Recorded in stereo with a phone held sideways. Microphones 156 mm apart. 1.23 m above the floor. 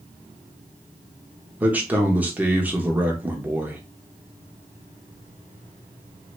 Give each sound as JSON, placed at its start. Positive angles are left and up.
{"t": 1.6, "sound": "a man speaking", "side_deg": -10, "distance_m": 0.9}